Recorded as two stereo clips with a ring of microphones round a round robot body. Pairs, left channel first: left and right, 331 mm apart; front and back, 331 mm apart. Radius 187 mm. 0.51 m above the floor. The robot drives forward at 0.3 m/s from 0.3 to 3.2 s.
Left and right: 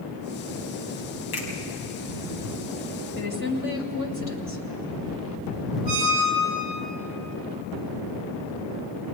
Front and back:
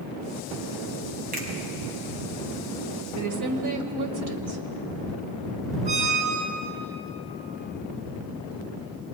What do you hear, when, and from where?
1.3 s a finger snap: 115° left, 4.5 m
3.1 s a woman speaking: 150° left, 2.5 m
5.8 s a squeak: 135° right, 4 m